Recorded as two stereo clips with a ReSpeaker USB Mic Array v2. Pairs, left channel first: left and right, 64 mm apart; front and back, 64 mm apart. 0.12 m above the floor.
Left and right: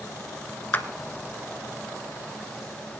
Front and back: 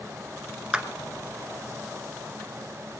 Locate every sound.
0.7 s a clap: 115° left, 1.1 m